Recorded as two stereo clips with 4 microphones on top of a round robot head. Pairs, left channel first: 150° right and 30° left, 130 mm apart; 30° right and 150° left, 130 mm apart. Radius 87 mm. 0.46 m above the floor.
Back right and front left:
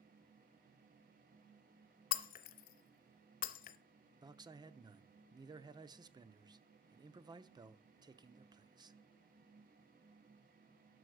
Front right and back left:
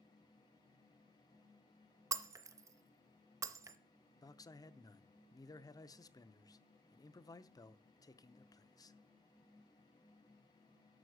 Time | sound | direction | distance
2.1 | breaking glass | 145° right | 0.6 m
4.2 | a man speaking | 5° left | 0.8 m